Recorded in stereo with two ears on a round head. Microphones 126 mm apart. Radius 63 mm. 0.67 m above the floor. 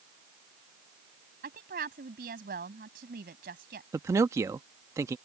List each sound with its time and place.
1.4 s a woman speaking: 75° right (ahead or behind)
3.9 s a man speaking: 20° right (ahead or behind)